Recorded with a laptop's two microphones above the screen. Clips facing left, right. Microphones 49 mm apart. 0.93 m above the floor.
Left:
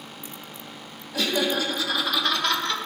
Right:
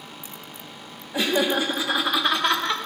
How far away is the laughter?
About 0.8 m.